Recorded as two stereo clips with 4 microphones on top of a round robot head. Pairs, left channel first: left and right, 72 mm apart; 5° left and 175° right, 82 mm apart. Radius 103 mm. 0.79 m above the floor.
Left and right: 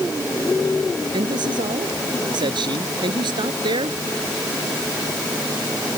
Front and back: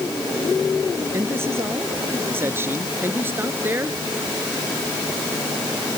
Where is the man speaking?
115° right; by 4.0 s 110° right.